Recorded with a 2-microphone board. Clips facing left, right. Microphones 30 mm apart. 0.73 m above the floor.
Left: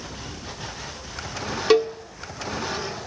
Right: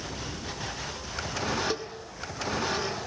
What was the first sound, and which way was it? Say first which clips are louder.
A cowbell: left 15 dB; 80° left.